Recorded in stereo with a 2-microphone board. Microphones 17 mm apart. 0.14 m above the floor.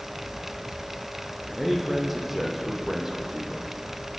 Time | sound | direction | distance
1.6 | a man speaking | 5° right (ahead or behind) | 5.5 m